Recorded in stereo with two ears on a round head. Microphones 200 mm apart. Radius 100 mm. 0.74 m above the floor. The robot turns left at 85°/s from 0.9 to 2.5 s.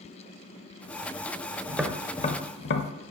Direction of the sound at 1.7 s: 15° right (ahead or behind).